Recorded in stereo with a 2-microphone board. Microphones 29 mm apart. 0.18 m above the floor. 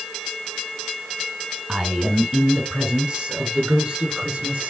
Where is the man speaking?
30° right (ahead or behind), 1.8 m; by 4.7 s 65° right (ahead or behind), 3 m.